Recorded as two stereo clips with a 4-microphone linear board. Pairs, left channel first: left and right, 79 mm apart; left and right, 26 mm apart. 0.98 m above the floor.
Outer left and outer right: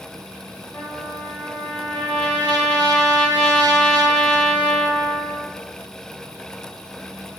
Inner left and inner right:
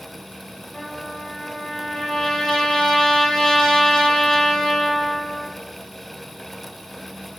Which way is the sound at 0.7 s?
20° left (ahead or behind).